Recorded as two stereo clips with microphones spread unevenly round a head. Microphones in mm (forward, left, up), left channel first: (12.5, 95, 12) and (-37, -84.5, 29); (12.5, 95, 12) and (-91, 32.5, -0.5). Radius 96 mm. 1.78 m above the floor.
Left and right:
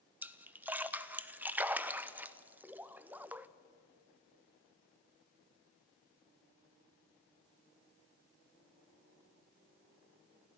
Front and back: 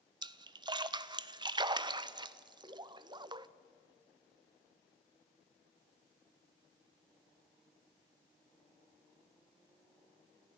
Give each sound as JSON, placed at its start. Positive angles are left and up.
{"t": 0.2, "sound": "a splash", "azimuth_deg": -170, "distance_m": 0.6}